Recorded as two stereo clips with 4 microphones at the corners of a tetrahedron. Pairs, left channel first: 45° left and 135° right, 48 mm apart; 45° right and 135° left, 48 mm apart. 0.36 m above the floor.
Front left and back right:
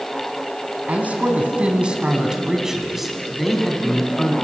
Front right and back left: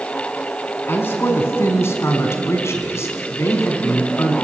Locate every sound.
0.9 s a man speaking: 80° right, 3.5 m; by 4.3 s 30° right, 3.5 m